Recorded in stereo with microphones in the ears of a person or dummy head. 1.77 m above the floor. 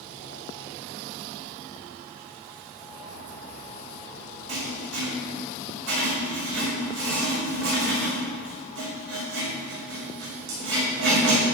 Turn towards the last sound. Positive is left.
turn(degrees=-75)  # may be behind; listen again after turning